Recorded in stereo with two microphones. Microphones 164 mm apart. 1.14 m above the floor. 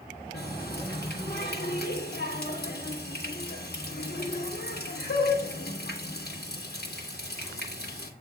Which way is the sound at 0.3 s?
75° left (ahead or behind).